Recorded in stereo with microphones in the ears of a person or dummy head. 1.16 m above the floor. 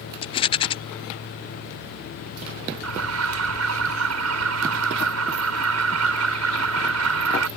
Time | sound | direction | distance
0.2 | a rattle | 25° left (ahead or behind) | ?
2.8 | an alarm | 75° right (ahead or behind) | ?